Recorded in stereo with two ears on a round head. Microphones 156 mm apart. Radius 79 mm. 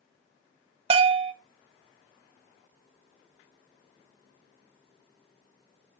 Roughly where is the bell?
Right.